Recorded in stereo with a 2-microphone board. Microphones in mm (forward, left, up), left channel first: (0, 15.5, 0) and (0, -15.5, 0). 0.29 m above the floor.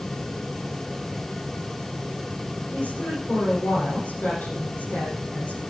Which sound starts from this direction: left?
A woman speaking, at 2.7 s.